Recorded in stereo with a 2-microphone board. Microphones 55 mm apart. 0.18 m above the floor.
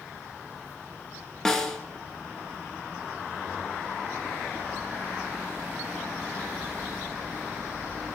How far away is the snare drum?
About 0.9 m.